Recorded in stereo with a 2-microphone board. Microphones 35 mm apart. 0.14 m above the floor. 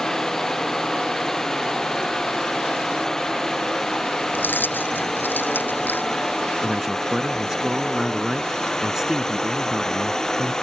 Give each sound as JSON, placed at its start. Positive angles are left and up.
{"t": 0.0, "sound": "a drone", "side_deg": 15}
{"t": 4.3, "sound": "keys jangling", "side_deg": 75}
{"t": 6.6, "sound": "a man speaking", "side_deg": -15}